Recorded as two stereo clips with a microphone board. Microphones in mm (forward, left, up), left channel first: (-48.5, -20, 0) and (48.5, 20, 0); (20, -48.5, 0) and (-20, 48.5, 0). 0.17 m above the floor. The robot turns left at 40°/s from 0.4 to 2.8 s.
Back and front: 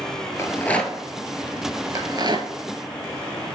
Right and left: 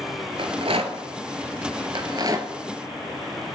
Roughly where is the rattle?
Behind left.